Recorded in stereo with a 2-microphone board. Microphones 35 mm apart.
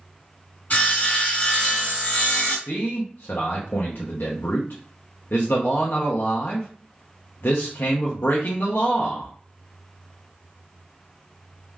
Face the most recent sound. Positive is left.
turn(degrees=75)  # may be behind; listen again after turning